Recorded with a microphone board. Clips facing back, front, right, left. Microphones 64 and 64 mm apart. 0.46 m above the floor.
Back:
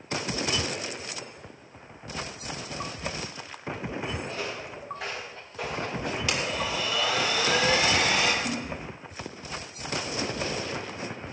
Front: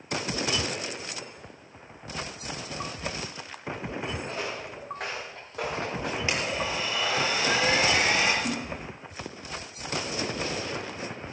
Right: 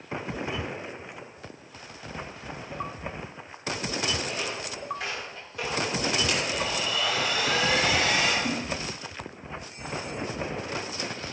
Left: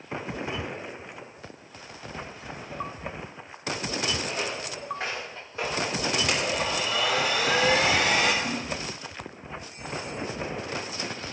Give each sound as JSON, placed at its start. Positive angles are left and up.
{"t": 4.3, "sound": "footsteps", "azimuth_deg": 35, "distance_m": 6.0}
{"t": 6.3, "sound": "a blender", "azimuth_deg": 60, "distance_m": 4.0}
{"t": 8.4, "sound": "a splash", "azimuth_deg": -10, "distance_m": 4.5}